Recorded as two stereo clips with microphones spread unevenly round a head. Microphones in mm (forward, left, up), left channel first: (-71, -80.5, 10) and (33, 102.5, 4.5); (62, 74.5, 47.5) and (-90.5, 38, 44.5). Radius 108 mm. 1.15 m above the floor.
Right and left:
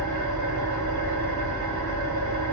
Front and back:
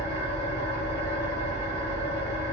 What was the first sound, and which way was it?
An engine running, 75° left.